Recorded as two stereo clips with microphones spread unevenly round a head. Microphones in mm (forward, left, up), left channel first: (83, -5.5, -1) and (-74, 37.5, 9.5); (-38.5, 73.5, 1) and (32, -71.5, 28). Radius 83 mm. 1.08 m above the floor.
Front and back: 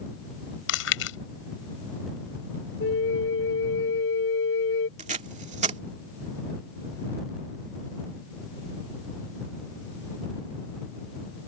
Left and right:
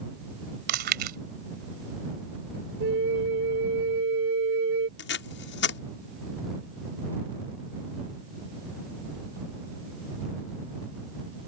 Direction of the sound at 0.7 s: 30° right.